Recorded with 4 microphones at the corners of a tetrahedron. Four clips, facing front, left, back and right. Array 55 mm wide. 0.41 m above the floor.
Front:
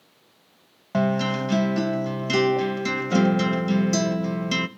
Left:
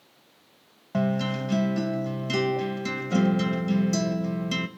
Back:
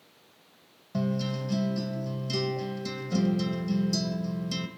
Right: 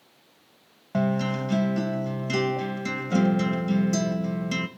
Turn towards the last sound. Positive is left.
turn(degrees=-5)